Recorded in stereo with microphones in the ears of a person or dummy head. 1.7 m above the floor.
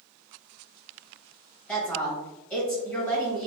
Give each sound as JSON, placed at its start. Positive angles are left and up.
{"t": 1.7, "sound": "a woman speaking", "side_deg": 5, "distance_m": 1.6}